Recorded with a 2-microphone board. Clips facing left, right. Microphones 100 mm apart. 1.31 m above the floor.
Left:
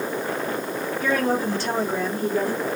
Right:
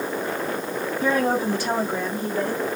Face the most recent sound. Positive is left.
turn(degrees=15)  # may be behind; listen again after turning